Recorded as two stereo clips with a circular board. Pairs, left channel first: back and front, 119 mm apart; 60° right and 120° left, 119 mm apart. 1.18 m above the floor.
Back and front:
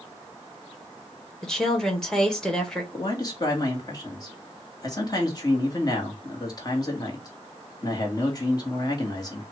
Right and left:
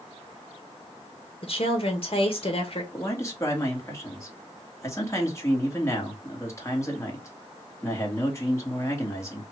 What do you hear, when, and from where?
1.4 s a woman speaking: 95° right, 1.6 m
2.9 s a man speaking: 125° right, 1.8 m